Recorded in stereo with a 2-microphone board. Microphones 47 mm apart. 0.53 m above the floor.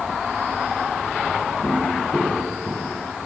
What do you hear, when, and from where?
1.6 s footsteps: centre (ahead or behind), 6 m; by 3.0 s 10° left (ahead or behind), 6 m